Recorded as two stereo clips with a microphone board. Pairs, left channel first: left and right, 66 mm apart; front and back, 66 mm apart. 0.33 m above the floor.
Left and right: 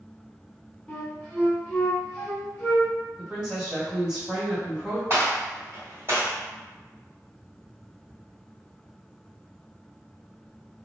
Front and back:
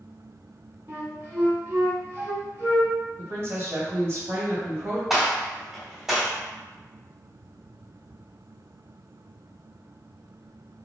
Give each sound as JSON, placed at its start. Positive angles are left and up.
{"t": 0.9, "sound": "a flute", "azimuth_deg": 155, "distance_m": 0.7}
{"t": 3.2, "sound": "a woman speaking", "azimuth_deg": -160, "distance_m": 1.6}
{"t": 5.1, "sound": "a gunshot", "azimuth_deg": -100, "distance_m": 1.8}